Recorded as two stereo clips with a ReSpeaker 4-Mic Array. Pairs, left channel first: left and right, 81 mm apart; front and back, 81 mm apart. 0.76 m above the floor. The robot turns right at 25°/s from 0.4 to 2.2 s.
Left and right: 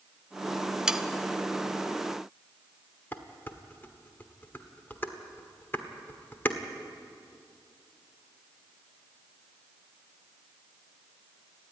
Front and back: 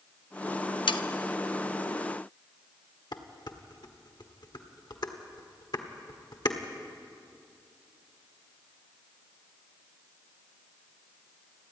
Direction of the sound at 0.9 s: 5° right.